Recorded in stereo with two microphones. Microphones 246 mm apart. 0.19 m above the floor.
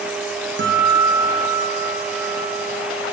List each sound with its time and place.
0.6 s a guitar: 50° right (ahead or behind), 5.5 m